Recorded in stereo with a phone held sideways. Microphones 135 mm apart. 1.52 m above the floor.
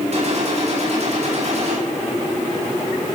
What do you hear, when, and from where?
0.1 s a gunshot: 55° right (ahead or behind), 4.5 m